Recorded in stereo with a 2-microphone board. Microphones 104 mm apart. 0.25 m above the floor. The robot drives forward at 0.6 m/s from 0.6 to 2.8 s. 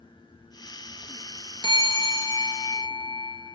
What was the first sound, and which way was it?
A bell, 50° left (ahead or behind).